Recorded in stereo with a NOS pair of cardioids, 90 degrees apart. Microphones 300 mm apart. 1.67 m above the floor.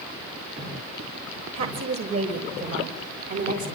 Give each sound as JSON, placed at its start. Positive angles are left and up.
{"t": 1.5, "sound": "a woman speaking", "azimuth_deg": -55, "distance_m": 6.5}